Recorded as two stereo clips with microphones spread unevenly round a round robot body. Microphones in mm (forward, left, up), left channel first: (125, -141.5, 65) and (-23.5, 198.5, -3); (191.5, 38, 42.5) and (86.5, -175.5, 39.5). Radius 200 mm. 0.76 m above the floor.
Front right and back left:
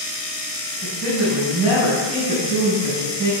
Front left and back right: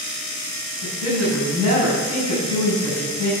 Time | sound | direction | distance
0.8 | a woman speaking | 130° right | 5 m